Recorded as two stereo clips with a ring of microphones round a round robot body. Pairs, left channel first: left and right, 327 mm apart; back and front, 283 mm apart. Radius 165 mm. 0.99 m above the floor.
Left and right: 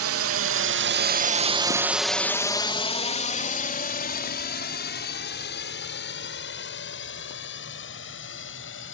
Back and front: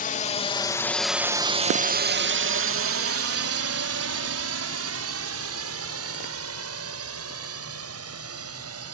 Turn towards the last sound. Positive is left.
turn(degrees=35)